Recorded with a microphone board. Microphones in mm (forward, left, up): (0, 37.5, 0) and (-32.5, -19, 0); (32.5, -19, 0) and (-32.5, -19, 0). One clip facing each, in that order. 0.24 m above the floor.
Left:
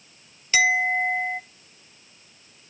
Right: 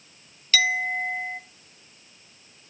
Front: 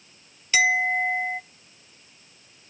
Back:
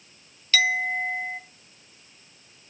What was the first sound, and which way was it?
A clink, 35° left.